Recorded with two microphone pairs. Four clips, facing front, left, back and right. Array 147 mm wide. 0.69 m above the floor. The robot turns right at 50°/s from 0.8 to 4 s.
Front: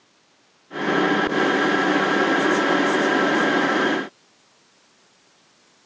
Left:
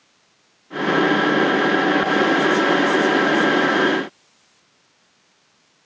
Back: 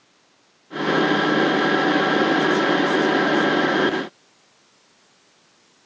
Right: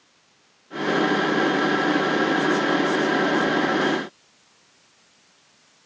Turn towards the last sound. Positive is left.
No sound to turn to.